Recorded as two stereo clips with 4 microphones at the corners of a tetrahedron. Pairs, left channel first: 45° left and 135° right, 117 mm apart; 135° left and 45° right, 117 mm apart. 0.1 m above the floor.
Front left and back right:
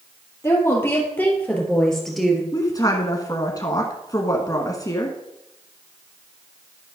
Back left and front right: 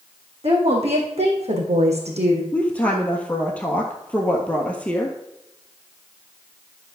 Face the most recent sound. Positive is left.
turn(degrees=65)